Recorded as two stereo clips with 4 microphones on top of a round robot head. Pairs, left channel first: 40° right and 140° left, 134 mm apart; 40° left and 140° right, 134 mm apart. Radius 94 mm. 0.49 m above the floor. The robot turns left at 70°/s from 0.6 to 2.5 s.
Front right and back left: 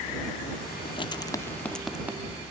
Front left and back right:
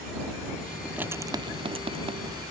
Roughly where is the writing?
Ahead right.